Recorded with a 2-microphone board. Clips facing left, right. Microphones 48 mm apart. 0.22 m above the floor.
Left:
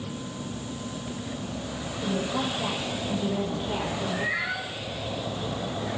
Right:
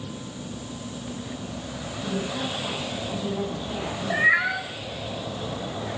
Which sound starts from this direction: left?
A woman speaking, at 2.0 s.